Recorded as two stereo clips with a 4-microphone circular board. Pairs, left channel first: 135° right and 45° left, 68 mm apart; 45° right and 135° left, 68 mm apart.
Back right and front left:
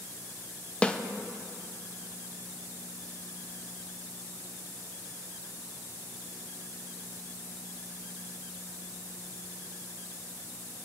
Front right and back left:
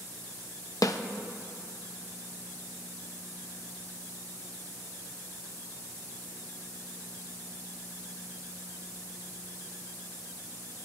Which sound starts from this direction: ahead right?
A snare drum, at 0.8 s.